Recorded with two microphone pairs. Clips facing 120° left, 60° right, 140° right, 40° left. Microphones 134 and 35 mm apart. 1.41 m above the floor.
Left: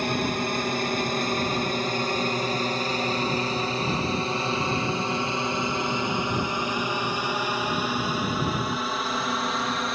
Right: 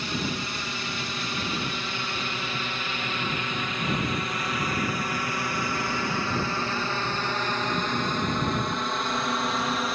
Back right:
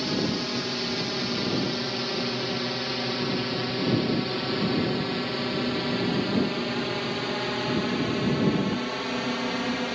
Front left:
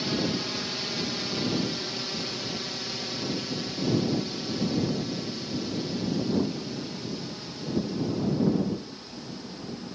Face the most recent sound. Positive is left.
turn(degrees=-145)